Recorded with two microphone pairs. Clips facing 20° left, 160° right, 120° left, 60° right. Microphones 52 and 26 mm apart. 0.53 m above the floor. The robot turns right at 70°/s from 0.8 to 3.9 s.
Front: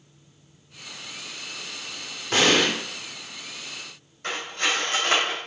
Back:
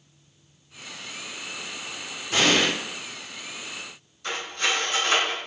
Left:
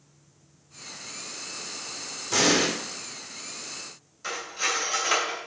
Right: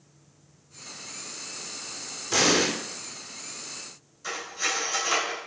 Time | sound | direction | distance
2.3 | an explosion | 10° left | 0.9 m
4.2 | cutlery clinking | 65° left | 1.4 m